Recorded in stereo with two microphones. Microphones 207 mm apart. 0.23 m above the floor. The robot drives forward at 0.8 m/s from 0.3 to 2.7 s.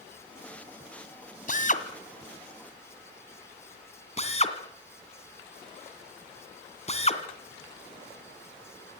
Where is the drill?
40° left (ahead or behind), 1.9 m; by 9.0 s 30° left (ahead or behind), 2.5 m.